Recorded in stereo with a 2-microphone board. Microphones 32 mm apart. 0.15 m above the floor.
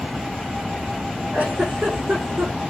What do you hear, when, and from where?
1.3 s a giggle: 55° right (ahead or behind), 8 m